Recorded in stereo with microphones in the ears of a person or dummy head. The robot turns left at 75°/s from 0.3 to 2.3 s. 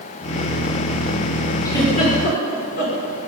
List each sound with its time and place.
1.6 s a giggle: 25° left (ahead or behind), 3.5 m; by 3.0 s 75° left (ahead or behind), 3.5 m